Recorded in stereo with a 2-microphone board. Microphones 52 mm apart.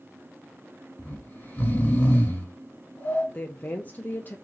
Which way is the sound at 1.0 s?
30° left (ahead or behind).